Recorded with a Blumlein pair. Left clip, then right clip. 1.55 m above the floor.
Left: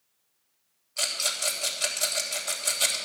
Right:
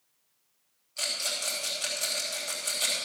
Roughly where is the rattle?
Ahead.